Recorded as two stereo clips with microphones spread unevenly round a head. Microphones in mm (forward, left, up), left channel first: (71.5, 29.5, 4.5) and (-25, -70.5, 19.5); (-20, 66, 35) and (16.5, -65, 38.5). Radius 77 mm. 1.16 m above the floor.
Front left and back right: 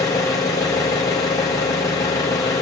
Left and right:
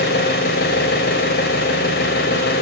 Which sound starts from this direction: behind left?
An engine running, at 0.0 s.